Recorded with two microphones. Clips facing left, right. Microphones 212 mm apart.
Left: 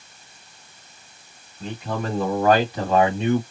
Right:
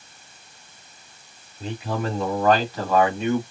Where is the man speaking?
10° right (ahead or behind), 1.4 m; by 3.4 s 35° left (ahead or behind), 1.5 m.